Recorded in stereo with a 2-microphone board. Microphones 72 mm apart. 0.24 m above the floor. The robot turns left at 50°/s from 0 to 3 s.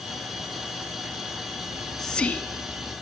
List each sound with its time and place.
1.7 s whispering: 170° right, 2 m; by 2.9 s 130° left, 2 m